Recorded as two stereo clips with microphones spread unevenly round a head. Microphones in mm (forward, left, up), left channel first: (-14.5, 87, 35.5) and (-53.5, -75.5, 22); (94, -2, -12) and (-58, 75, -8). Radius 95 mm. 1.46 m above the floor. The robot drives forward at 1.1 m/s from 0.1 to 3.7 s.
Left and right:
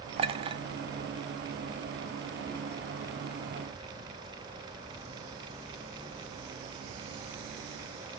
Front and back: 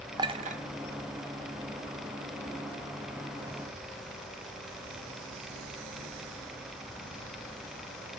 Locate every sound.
0.2 s a clink: 150° right, 0.6 m; by 0.6 s 165° right, 1.0 m